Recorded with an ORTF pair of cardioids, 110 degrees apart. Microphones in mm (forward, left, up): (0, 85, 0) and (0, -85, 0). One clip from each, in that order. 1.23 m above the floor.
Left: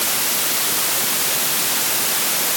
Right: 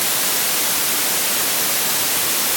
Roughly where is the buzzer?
I don't hear a buzzer.